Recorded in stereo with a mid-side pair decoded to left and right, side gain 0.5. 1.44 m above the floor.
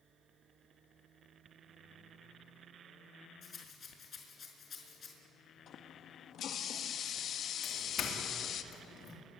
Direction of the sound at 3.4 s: 45° left.